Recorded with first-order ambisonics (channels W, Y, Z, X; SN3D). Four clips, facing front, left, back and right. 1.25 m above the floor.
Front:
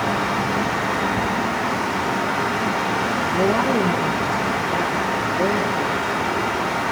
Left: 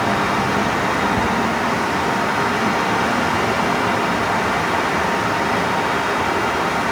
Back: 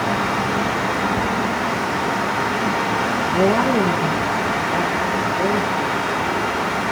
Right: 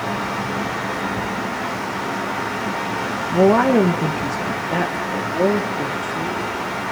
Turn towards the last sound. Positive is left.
turn(degrees=-90)